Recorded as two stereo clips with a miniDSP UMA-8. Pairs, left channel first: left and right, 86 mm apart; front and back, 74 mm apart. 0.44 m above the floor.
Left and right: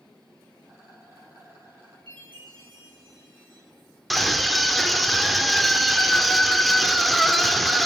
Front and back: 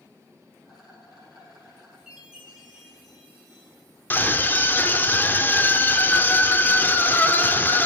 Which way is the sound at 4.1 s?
Straight ahead.